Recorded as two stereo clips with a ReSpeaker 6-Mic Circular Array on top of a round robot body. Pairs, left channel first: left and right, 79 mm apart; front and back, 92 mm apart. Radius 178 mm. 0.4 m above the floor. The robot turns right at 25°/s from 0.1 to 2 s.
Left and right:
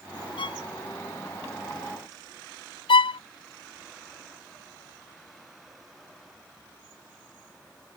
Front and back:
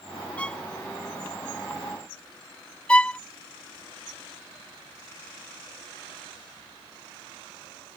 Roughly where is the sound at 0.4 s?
Left.